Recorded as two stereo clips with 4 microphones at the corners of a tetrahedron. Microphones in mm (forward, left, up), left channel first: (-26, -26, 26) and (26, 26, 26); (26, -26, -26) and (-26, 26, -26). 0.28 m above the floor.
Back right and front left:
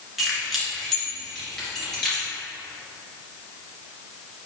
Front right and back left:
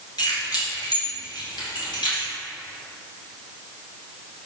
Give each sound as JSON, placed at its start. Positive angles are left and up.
{"t": 0.2, "sound": "keys jangling", "azimuth_deg": -45, "distance_m": 2.0}